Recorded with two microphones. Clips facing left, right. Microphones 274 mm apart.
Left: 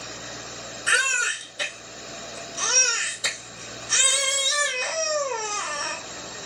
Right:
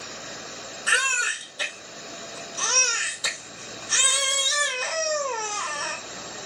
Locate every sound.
0.9 s a baby crying: 30° left (ahead or behind), 1.7 m